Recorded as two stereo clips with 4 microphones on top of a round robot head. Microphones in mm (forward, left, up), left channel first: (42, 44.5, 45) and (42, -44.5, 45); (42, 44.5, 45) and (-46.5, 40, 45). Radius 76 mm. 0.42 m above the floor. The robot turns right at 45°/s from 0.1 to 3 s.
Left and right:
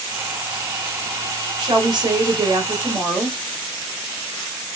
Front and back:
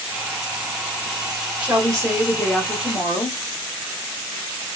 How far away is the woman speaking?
About 1.6 m.